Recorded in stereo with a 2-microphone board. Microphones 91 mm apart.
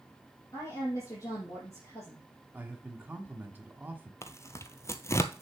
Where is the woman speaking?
35° left (ahead or behind), 5 m.